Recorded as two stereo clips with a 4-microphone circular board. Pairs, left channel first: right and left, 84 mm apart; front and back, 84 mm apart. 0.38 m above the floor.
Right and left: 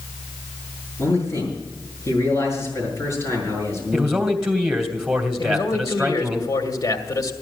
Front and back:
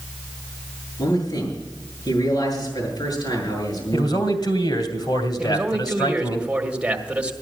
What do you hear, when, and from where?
1.0 s a man speaking: 35° right, 7 m
3.9 s a man speaking: 10° left, 2.5 m
5.4 s a man speaking: 110° right, 1.9 m